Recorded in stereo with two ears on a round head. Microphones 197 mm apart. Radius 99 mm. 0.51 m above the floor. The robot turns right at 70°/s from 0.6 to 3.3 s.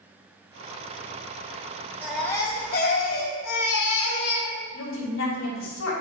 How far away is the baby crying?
About 1.4 m.